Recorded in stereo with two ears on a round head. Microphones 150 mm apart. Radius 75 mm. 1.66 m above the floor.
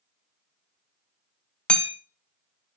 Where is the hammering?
5° left (ahead or behind), 0.7 m.